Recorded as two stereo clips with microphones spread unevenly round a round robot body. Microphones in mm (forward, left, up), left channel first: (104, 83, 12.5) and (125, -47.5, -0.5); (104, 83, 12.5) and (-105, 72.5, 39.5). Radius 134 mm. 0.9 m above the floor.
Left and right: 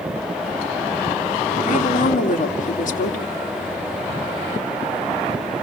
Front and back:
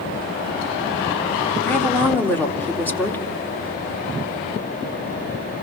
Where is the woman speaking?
80° left, 2 m.